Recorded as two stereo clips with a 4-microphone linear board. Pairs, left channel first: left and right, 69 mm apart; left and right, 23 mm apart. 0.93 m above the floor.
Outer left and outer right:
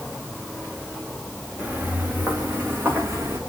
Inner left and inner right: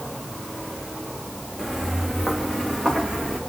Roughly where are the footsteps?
Centre.